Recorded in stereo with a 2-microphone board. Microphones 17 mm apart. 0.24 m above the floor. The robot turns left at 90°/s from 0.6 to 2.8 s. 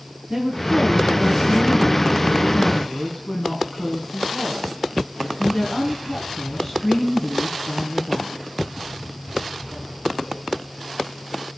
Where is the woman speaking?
135° right, 2.5 m; by 8.5 s 25° left, 2.5 m.